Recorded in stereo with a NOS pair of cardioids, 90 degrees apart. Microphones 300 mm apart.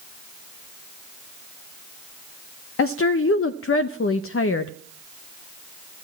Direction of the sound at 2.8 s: 50° left.